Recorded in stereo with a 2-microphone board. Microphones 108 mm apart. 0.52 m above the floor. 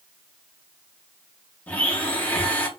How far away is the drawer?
No drawer in this recording.